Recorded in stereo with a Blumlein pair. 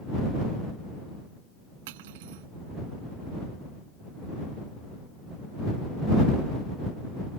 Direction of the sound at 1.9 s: 50° right.